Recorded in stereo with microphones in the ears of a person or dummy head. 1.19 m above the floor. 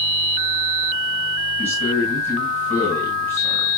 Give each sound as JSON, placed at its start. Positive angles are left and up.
{"t": 1.6, "sound": "a man speaking", "side_deg": 5, "distance_m": 7.0}